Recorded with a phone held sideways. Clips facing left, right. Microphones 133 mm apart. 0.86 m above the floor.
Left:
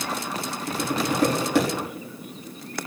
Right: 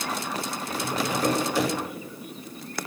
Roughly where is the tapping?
Left.